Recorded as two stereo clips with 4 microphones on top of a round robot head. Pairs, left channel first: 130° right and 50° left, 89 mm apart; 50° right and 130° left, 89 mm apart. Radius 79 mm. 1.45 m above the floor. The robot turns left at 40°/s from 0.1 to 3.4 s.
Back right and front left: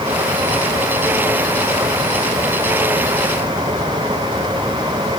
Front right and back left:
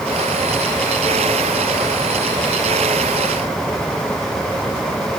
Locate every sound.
Only background noise.